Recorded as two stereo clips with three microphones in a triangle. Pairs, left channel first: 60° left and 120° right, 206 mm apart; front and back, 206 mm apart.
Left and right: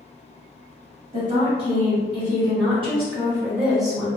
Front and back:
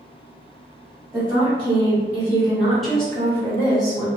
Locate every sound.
1.1 s a woman speaking: 115° right, 1.8 m; by 4.1 s 15° right, 1.2 m